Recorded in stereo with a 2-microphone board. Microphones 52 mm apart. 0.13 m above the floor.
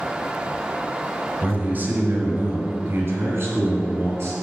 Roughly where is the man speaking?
Right.